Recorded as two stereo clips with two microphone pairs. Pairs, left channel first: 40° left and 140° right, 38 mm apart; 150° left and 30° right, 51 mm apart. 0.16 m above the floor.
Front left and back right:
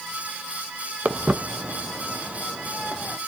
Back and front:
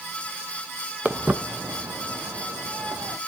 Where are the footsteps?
95° right, 1.1 m; by 3.2 s 30° right, 2 m.